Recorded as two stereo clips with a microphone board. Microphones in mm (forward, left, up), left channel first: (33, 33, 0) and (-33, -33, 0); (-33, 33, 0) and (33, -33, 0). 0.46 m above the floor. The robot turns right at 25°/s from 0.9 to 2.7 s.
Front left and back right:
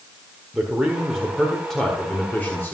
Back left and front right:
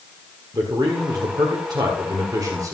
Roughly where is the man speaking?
Ahead right.